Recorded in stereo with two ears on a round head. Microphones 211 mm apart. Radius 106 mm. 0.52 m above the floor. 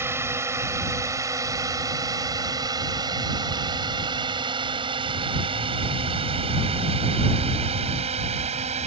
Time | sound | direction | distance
0.0 | a drone | 10° right (ahead or behind) | ?